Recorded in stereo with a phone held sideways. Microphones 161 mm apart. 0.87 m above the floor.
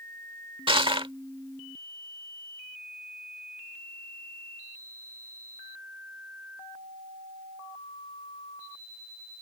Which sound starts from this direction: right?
Crushing, at 0.7 s.